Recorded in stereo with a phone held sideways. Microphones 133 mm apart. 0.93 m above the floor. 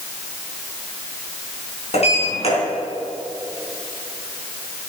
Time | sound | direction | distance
1.9 | a sliding door | 55° left (ahead or behind) | 4 m